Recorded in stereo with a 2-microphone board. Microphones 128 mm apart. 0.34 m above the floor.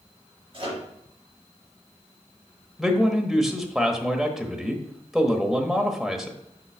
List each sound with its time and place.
0.5 s a microwave: 40° right (ahead or behind), 4 m
2.8 s a man speaking: 5° right (ahead or behind), 1.1 m